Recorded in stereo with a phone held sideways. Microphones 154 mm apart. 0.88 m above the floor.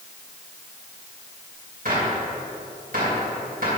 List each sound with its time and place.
1.9 s a gunshot: 70° right (ahead or behind), 2.5 m